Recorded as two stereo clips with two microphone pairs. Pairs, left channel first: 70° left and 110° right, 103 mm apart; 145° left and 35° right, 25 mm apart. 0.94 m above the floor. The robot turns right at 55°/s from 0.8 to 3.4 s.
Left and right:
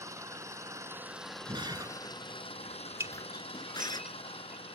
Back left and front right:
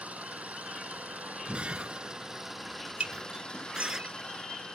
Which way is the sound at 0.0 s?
50° right.